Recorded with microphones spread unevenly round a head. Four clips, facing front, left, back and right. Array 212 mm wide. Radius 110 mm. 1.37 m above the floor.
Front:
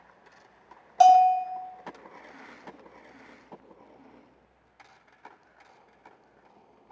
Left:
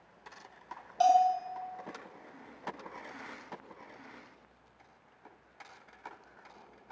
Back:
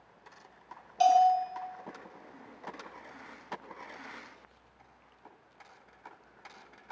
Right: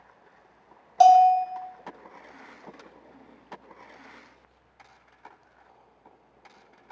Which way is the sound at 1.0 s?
60° right.